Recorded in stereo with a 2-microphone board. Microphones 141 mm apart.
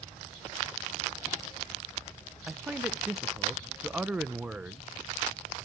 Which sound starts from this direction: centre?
A man speaking, at 2.5 s.